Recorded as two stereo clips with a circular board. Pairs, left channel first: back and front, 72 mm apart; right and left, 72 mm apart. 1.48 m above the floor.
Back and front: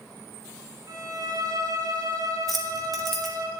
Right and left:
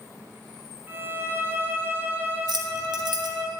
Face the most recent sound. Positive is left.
turn(degrees=90)